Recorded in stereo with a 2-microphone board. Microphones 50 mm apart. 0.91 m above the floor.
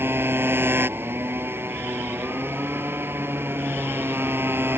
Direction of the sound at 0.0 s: 45° right (ahead or behind).